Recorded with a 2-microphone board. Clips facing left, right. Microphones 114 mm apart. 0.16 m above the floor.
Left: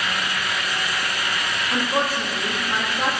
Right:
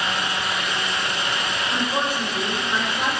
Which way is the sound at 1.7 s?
5° left (ahead or behind).